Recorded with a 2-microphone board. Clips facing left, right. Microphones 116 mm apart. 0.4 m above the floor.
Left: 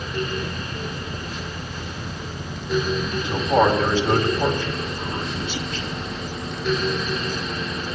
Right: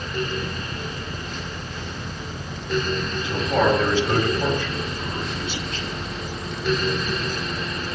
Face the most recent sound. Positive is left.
turn(degrees=25)  # may be behind; listen again after turning